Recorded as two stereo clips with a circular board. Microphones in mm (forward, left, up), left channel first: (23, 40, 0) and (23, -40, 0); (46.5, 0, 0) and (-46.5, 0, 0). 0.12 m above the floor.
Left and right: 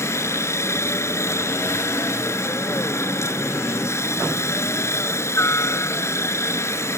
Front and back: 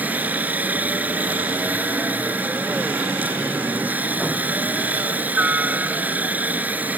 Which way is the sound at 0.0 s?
115° left.